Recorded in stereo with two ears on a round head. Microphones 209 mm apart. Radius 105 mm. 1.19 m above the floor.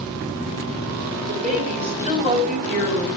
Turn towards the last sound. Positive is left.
turn(degrees=-30)  # may be behind; listen again after turning